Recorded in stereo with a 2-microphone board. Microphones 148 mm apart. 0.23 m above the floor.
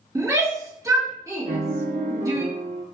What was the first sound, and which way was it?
A shout, 25° right (ahead or behind).